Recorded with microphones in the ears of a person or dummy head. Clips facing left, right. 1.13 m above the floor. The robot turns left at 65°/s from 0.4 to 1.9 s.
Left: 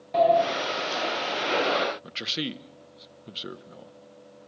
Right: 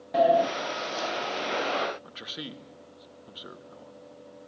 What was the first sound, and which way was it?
A sliding door, 15° right (ahead or behind).